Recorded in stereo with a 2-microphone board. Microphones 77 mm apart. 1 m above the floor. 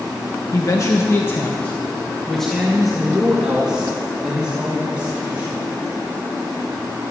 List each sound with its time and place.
0.5 s a man speaking: 45° left (ahead or behind), 1.1 m; by 5.6 s 20° right (ahead or behind), 3 m